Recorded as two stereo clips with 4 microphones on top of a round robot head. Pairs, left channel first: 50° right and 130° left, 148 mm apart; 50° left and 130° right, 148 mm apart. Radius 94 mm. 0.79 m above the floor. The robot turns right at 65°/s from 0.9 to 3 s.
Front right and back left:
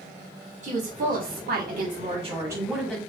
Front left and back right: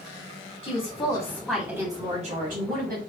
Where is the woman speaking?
100° left, 1.9 m; by 3.0 s 125° right, 1.9 m.